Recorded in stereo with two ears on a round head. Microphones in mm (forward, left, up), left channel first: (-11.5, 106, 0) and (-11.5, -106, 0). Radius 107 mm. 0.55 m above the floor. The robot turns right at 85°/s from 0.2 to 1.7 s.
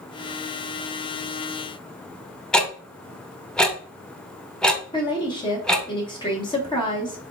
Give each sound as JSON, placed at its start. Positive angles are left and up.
{"t": 2.5, "sound": "ticking", "side_deg": 5, "distance_m": 0.7}
{"t": 4.9, "sound": "a woman speaking", "side_deg": 20, "distance_m": 1.1}